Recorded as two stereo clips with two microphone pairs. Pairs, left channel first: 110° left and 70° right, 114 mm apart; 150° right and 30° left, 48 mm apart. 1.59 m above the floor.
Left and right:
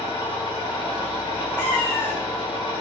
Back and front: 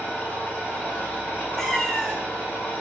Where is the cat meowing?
135° left, 0.8 m.